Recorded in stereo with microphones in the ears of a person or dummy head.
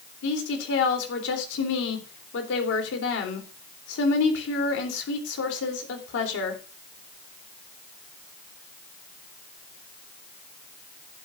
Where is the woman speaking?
75° left (ahead or behind), 3.5 m.